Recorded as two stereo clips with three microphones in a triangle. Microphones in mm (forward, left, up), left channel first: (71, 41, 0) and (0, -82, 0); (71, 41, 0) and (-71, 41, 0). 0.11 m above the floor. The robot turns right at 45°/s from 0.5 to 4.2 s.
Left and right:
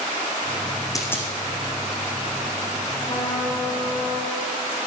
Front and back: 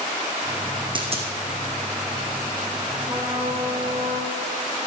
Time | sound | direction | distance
0.9 | a dropped coin | 125° left | 2.5 m
3.0 | a trumpet | 130° left | 5.5 m